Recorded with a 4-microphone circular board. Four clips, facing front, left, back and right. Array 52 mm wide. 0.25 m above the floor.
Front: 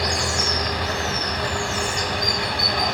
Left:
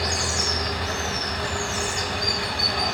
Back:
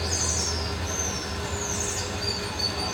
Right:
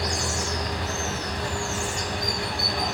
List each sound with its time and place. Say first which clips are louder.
0.0 s running water: left 1 dB, front 8 dB; 10° left, 0.8 m